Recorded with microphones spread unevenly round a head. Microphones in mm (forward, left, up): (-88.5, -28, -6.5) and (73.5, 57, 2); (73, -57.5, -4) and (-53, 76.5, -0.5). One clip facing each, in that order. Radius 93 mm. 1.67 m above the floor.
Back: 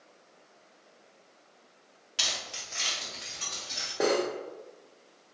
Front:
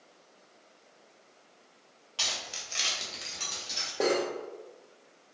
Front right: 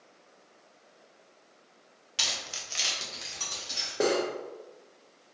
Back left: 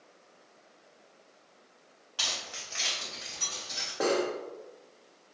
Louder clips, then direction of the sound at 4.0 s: Back 1 dB, front right 1 dB; 60° right.